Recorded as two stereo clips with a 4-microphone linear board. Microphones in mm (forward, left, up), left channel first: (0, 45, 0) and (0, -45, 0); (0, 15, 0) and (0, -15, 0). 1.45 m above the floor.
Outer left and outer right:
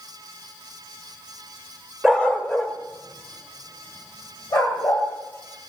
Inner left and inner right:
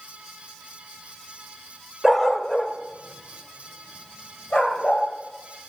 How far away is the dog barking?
About 1.0 m.